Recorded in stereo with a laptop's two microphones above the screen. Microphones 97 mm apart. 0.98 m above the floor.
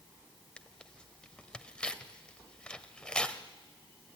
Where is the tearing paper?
10° left (ahead or behind), 1.2 m.